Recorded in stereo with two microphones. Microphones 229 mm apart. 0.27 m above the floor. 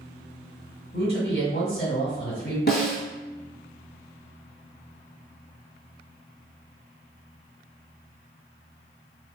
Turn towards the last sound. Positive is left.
turn(degrees=50)  # may be behind; listen again after turning